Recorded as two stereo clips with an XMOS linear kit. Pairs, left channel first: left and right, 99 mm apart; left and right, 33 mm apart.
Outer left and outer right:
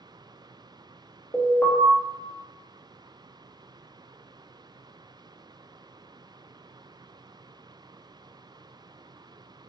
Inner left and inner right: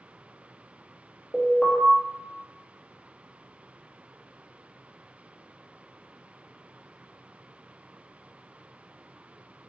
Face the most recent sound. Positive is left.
turn(degrees=20)  # may be behind; listen again after turning